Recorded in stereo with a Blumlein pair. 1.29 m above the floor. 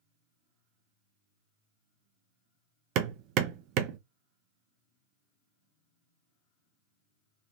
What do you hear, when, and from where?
3.0 s hammering: 40° right, 0.6 m